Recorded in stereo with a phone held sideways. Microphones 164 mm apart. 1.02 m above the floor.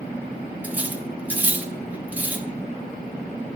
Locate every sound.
0.6 s cutlery clinking: 10° right (ahead or behind), 0.8 m